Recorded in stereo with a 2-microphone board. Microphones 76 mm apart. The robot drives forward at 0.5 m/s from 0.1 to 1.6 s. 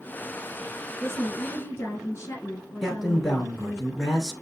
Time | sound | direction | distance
1.0 | a woman speaking | 40° left (ahead or behind) | 2 m
2.8 | a man speaking | centre (ahead or behind) | 1.7 m